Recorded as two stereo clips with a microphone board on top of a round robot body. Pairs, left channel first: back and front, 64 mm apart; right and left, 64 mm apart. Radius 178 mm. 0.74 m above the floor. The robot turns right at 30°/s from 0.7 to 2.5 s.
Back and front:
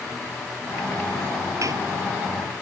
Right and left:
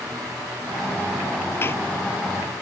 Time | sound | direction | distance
1.6 | a door slam | 35° right | ?